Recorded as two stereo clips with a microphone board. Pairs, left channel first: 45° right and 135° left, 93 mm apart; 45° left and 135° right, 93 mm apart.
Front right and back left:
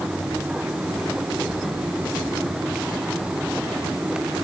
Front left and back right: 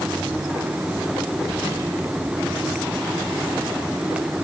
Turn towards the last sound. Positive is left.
No sound to turn to.